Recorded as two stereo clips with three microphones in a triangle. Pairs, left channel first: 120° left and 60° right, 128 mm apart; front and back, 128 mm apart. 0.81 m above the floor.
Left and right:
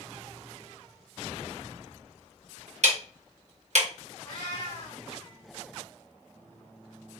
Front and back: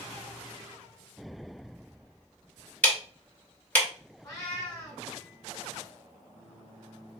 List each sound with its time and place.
2.8 s ticking: 80° right, 0.8 m
4.2 s a cat meowing: 60° left, 1.6 m